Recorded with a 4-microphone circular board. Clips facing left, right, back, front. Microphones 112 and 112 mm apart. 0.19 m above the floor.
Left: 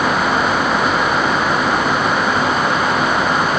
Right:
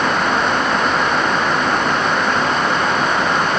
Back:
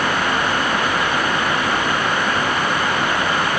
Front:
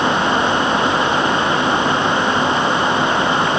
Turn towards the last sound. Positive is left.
No sound to turn to.